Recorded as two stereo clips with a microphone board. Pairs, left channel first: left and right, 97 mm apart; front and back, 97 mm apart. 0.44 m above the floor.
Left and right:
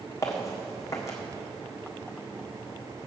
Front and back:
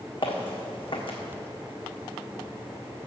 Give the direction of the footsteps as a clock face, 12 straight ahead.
11 o'clock.